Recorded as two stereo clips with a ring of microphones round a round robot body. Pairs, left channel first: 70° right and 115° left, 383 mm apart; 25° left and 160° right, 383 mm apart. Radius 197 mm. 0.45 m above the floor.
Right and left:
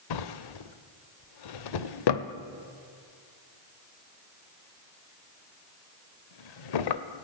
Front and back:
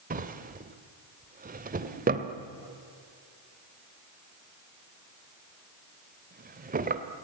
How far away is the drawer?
About 1.5 m.